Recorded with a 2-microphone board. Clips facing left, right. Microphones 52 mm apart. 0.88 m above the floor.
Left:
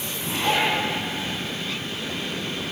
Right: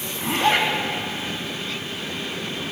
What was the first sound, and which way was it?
A zipper, 45° right (ahead or behind).